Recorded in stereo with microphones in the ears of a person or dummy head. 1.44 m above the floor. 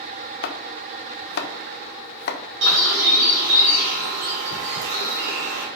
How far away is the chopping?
About 1.0 m.